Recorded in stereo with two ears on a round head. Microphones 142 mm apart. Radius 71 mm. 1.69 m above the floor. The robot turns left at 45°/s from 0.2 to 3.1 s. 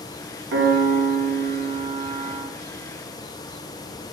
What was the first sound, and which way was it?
A piano, 85° right.